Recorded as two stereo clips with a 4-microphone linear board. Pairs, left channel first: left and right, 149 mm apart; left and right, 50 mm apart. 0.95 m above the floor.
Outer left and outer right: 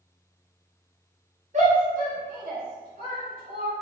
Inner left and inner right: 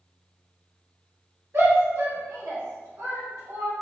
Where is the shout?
55° right (ahead or behind), 1.1 m; by 3.7 s 85° right, 1.9 m.